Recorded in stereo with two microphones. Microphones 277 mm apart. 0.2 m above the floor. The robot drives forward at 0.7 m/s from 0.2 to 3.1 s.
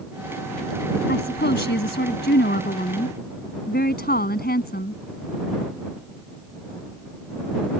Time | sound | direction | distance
1.1 | a woman speaking | 40° left (ahead or behind) | ?